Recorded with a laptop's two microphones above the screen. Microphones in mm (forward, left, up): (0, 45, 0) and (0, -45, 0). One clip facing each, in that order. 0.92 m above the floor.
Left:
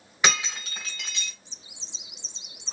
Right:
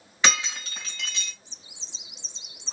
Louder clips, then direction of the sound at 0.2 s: Even; 15° left (ahead or behind).